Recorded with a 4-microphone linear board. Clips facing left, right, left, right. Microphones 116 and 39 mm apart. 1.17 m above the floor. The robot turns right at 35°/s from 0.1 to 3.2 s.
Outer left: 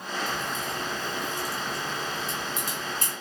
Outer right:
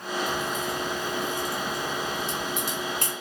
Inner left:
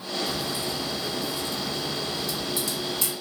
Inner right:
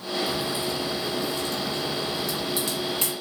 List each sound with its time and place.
0.3 s a crack: 20° right (ahead or behind), 1.4 m; by 3.1 s 55° right (ahead or behind), 1.4 m